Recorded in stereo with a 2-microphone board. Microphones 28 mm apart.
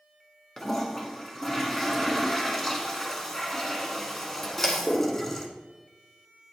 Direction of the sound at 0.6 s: 10° left (ahead or behind).